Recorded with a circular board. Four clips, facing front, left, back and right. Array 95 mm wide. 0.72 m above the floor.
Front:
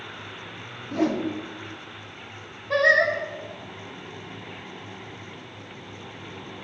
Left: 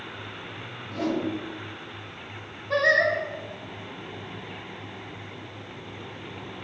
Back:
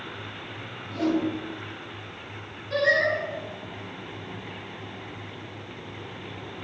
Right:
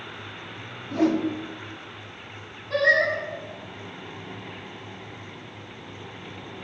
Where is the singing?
30° left, 1.3 m.